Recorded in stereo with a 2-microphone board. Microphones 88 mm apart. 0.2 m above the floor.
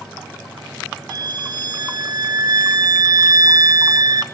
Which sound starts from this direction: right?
A violin, at 1.1 s.